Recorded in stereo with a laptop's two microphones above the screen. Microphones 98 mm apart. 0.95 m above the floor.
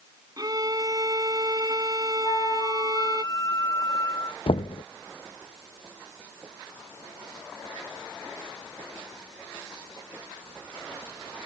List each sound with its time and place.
0.4 s a violin: 40° right (ahead or behind)
2.2 s a flute: 40° left (ahead or behind)
4.5 s knocking: 70° left (ahead or behind)